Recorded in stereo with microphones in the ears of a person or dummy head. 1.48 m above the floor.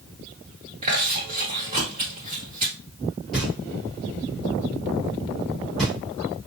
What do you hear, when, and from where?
0.8 s chewing: 25° right (ahead or behind), 1.2 m
3.3 s knocking: centre (ahead or behind), 2.0 m